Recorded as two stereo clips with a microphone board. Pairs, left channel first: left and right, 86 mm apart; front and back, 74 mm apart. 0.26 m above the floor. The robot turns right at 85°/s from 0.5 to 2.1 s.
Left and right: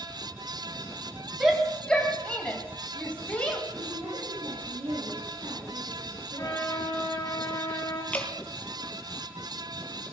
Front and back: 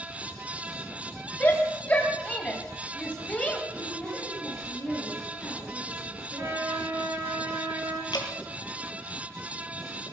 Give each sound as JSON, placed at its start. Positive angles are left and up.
{"t": 1.4, "sound": "a shout", "azimuth_deg": -20, "distance_m": 1.7}
{"t": 3.7, "sound": "a woman speaking", "azimuth_deg": -85, "distance_m": 7.0}
{"t": 6.3, "sound": "a trumpet", "azimuth_deg": 135, "distance_m": 4.5}
{"t": 8.1, "sound": "dripping", "azimuth_deg": 15, "distance_m": 2.5}